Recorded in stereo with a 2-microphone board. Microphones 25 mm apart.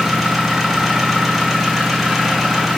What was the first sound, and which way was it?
An engine running, 5° right (ahead or behind).